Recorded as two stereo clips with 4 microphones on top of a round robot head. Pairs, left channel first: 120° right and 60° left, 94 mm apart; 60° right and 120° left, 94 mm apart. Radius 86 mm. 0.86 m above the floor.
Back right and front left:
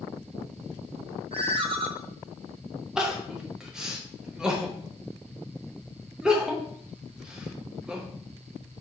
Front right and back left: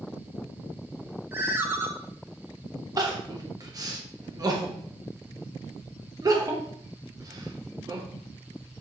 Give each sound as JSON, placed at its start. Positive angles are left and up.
{"t": 1.3, "sound": "a ringtone", "azimuth_deg": 55, "distance_m": 0.8}
{"t": 3.0, "sound": "crying", "azimuth_deg": 140, "distance_m": 1.0}